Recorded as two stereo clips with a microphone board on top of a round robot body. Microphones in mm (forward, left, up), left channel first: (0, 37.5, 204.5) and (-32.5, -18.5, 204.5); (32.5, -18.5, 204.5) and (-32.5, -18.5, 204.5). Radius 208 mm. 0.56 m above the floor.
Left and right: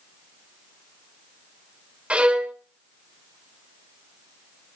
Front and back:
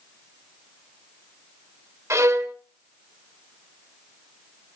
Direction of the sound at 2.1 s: 175° left.